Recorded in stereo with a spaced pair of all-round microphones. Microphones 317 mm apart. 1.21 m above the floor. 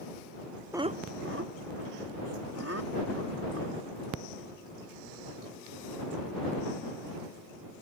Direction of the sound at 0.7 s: 5° right (ahead or behind).